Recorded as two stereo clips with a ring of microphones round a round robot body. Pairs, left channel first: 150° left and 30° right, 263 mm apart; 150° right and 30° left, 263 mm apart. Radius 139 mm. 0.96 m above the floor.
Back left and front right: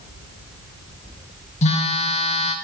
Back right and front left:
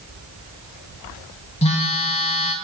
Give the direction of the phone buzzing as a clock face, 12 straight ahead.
6 o'clock.